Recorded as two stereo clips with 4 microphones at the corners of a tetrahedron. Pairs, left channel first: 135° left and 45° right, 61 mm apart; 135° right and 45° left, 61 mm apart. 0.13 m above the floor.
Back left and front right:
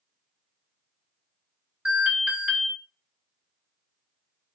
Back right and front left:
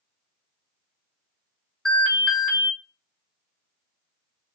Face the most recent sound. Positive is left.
turn(degrees=-70)